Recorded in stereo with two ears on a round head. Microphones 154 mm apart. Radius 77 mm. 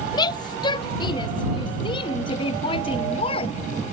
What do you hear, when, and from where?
0.1 s a shout: 25° left (ahead or behind); by 3.6 s 35° left (ahead or behind)